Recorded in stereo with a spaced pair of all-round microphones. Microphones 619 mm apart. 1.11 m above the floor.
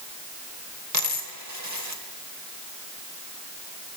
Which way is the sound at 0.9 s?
25° right (ahead or behind).